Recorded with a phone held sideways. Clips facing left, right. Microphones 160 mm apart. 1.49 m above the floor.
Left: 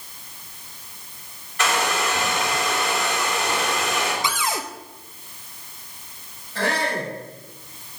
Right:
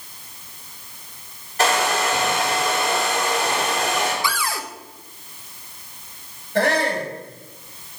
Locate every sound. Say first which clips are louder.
1.6 s a hair dryer: right 3 dB; 40° right (ahead or behind), 5.5 m
4.2 s a cupboard door: even; 20° left (ahead or behind), 0.8 m
6.5 s a shout: right 5 dB; 55° right (ahead or behind), 7.5 m